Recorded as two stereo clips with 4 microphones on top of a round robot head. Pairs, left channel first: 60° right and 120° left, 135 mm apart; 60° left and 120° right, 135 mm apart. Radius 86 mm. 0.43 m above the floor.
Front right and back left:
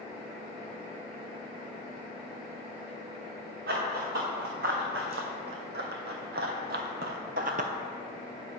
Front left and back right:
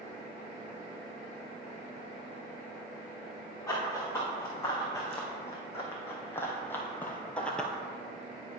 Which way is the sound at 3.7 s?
130° left.